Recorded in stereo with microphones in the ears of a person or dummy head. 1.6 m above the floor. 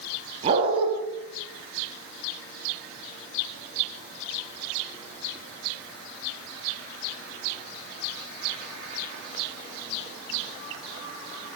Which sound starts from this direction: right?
A dog barking, at 0.4 s.